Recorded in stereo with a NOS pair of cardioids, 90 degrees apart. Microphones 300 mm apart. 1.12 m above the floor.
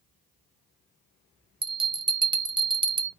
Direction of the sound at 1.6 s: 15° right.